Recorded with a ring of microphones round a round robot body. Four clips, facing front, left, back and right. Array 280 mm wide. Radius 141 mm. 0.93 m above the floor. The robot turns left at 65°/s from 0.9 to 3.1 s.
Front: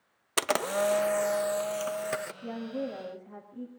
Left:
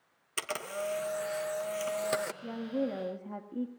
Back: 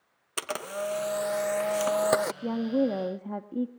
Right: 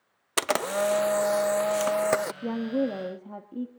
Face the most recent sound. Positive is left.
turn(degrees=-170)